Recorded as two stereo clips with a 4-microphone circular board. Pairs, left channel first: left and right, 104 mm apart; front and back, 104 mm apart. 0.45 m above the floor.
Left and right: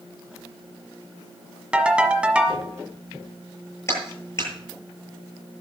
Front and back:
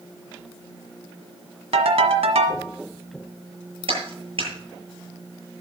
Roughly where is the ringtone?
Behind.